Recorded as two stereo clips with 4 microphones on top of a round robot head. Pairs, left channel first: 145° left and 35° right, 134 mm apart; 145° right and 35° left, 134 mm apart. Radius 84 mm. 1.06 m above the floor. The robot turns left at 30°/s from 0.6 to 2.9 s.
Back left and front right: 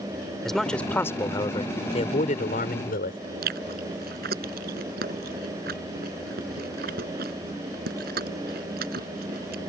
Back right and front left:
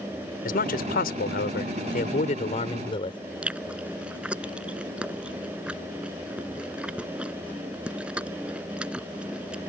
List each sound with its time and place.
0.5 s a man speaking: 130° right; by 3.2 s 160° left
3.4 s chewing: 45° right